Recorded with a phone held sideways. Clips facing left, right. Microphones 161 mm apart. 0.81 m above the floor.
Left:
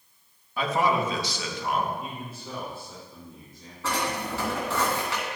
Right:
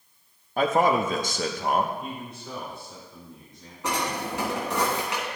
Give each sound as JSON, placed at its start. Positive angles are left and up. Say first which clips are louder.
{"t": 0.6, "sound": "a man speaking", "louder": "right 3 dB", "side_deg": -50, "distance_m": 0.9}
{"t": 2.0, "sound": "a man speaking", "louder": "right 1 dB", "side_deg": 5, "distance_m": 2.5}
{"t": 3.8, "sound": "a drawer", "louder": "right 1 dB", "side_deg": -20, "distance_m": 3.0}